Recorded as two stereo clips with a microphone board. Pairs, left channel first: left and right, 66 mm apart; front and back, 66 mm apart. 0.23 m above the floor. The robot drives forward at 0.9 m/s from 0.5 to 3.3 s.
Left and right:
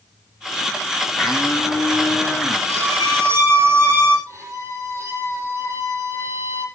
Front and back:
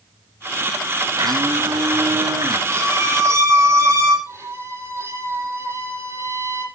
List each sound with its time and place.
1.2 s a blender: 175° right, 3.5 m
2.7 s a violin: 135° right, 8 m; by 4.2 s 140° right, 8.5 m
4.3 s a violin: 135° right, 9 m